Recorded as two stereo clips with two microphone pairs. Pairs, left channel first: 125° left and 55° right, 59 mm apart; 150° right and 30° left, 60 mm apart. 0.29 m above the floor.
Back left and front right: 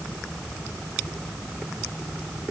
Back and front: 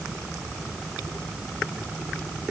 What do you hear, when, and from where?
Only background noise.